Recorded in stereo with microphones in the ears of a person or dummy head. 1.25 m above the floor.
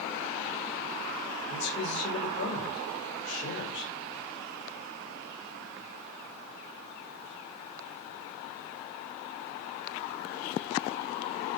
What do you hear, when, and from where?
1.5 s a man speaking: 65° left (ahead or behind), 7 m